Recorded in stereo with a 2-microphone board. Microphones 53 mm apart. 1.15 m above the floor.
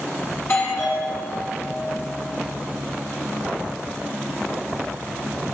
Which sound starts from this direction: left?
A doorbell, at 0.4 s.